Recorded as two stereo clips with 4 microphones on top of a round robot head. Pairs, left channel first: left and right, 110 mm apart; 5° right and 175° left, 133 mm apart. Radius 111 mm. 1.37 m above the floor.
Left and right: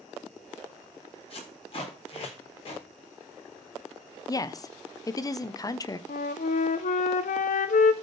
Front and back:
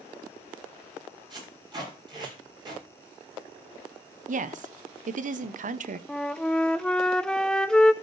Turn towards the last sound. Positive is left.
turn(degrees=80)